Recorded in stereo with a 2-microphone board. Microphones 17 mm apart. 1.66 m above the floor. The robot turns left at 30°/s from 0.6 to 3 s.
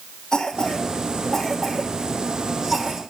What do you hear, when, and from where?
0.3 s a cough: 35° left (ahead or behind), 3 m; by 3.0 s 35° right (ahead or behind), 3 m